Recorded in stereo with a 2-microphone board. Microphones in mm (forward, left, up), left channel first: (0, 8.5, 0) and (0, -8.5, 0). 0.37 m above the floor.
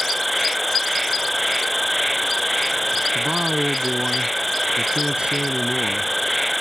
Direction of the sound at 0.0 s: 5° left (ahead or behind).